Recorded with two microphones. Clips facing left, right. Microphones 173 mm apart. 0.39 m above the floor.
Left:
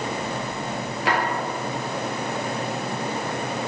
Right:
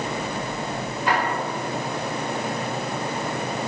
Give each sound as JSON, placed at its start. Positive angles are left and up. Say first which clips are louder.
{"t": 1.1, "sound": "a drawer", "louder": "even", "side_deg": 85, "distance_m": 3.0}